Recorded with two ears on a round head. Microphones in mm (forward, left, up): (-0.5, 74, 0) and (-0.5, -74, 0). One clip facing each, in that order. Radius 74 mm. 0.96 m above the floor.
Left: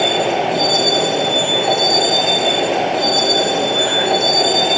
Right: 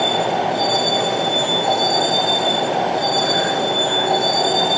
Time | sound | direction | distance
0.0 | a vehicle | 30° left (ahead or behind) | ?